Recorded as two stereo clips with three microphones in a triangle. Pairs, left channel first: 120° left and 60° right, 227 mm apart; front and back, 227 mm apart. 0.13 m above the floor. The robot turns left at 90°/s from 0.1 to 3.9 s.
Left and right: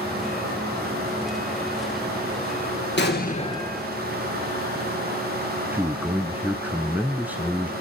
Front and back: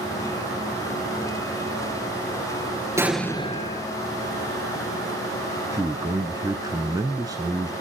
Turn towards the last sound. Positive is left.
turn(degrees=-130)